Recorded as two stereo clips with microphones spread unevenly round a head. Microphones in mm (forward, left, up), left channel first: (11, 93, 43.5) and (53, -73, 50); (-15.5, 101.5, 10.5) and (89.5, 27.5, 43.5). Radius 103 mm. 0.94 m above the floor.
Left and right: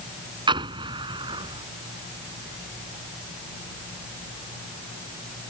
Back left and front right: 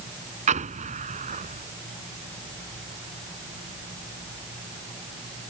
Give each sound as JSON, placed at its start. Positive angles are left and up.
{"t": 0.5, "sound": "an explosion", "azimuth_deg": -10}